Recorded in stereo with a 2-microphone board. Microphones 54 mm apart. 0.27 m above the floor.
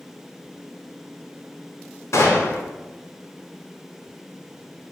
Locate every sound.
2.1 s a gunshot: 70° left (ahead or behind), 0.8 m